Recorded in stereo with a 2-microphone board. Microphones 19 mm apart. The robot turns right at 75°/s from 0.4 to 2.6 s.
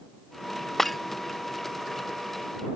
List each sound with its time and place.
0.8 s breaking glass: 15° left (ahead or behind); by 1.0 s centre (ahead or behind)